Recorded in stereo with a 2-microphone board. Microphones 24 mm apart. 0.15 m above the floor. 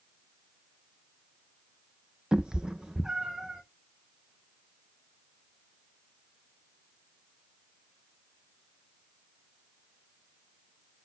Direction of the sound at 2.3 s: 35° right (ahead or behind).